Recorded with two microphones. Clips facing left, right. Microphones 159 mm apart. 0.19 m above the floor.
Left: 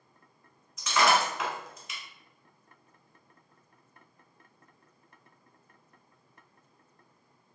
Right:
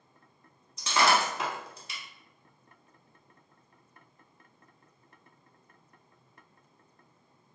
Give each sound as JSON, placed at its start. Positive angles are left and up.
{"t": 0.8, "sound": "breaking glass", "side_deg": -35, "distance_m": 0.8}